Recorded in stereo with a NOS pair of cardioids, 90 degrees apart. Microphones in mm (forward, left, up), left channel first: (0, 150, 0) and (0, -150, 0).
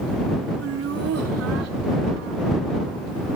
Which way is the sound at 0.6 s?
50° right.